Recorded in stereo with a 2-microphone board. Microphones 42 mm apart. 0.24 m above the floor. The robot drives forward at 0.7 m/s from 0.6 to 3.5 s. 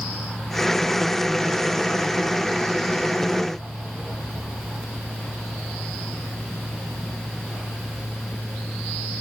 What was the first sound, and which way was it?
Only background noise.